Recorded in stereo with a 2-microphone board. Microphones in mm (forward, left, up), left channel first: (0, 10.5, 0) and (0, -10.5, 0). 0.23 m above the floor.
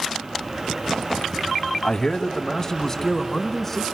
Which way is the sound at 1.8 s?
40° left (ahead or behind).